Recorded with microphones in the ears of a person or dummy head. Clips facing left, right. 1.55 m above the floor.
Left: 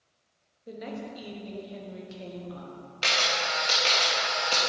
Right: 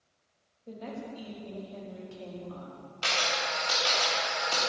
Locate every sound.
0.7 s a woman speaking: 20° left (ahead or behind), 1.2 m
3.0 s a camera shutter: 25° left (ahead or behind), 1.2 m